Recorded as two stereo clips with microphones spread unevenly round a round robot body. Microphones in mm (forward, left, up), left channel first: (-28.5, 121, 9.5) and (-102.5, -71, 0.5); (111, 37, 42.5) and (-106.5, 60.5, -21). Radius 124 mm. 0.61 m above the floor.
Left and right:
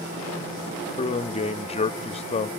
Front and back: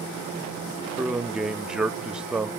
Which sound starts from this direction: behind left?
A man speaking, at 1.0 s.